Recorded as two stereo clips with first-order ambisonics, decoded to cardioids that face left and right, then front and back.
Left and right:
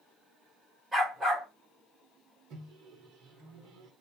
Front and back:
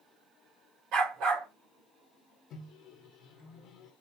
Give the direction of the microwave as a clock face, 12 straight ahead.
2 o'clock.